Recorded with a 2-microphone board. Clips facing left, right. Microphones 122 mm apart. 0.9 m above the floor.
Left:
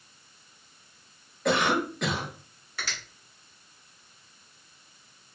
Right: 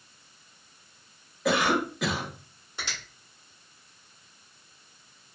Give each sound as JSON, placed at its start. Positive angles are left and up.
{"t": 1.4, "sound": "a cough", "side_deg": -5, "distance_m": 0.9}
{"t": 2.8, "sound": "a finger snap", "side_deg": -25, "distance_m": 1.7}